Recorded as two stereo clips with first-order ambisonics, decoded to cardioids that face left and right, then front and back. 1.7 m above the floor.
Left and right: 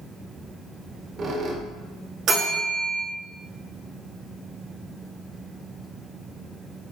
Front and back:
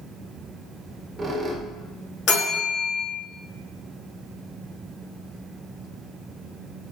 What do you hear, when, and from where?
0.8 s a squeak: 115° right, 0.6 m
2.3 s a bell: 35° right, 1.8 m